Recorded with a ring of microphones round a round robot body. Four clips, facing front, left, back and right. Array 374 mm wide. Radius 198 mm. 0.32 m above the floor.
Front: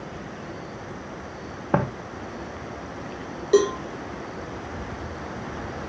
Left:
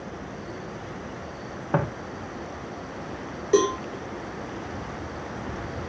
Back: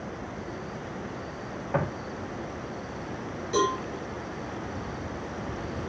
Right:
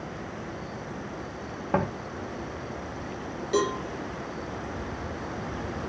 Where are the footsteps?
5° left, 1.9 m.